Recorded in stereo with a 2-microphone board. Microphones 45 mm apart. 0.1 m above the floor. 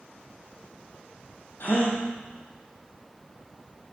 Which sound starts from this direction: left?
A gasp, at 1.6 s.